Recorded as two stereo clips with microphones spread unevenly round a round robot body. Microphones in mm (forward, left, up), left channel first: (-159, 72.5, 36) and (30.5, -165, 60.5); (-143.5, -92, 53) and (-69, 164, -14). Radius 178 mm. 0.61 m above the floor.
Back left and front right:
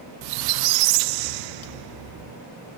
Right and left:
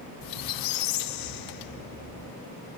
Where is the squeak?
65° right, 0.5 m.